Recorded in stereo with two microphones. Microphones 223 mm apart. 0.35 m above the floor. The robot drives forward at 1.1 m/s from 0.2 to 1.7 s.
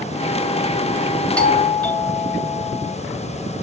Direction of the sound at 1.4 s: 5° left (ahead or behind).